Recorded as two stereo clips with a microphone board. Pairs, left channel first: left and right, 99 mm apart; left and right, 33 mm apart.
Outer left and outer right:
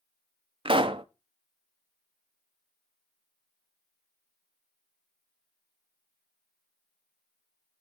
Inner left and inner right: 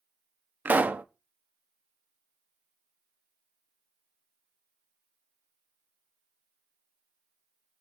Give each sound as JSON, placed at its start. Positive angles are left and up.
{"t": 0.7, "sound": "a pop", "side_deg": -60, "distance_m": 0.5}